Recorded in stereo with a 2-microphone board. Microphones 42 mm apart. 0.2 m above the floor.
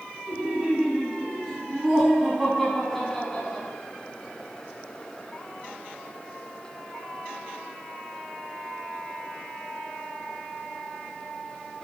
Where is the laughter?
20° right (ahead or behind), 2.5 m; by 3.7 s 20° left (ahead or behind), 1.8 m.